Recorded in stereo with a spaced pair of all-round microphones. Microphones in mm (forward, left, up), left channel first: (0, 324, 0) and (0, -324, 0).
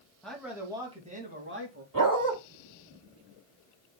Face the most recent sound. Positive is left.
turn(degrees=-30)  # may be behind; listen again after turning